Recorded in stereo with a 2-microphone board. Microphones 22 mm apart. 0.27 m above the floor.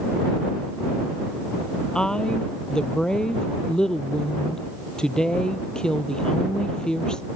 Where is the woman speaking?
45° left (ahead or behind).